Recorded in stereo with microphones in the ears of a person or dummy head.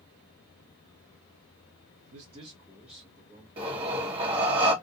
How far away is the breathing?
About 1.1 m.